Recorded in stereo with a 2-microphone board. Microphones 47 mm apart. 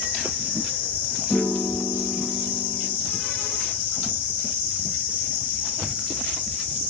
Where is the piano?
60° left (ahead or behind), 2.5 m.